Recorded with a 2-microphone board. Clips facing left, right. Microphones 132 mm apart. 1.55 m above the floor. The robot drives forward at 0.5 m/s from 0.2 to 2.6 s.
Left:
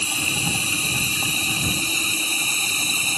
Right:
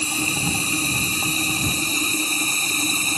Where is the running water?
40° right (ahead or behind); by 3.2 s 45° right (ahead or behind).